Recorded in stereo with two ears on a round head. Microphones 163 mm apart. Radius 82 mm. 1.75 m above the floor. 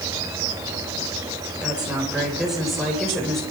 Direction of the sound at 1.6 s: 5° right (ahead or behind).